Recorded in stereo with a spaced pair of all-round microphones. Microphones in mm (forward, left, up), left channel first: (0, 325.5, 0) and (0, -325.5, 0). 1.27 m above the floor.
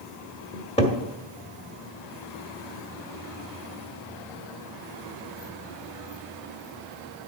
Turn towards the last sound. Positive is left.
turn(degrees=10)  # may be behind; listen again after turning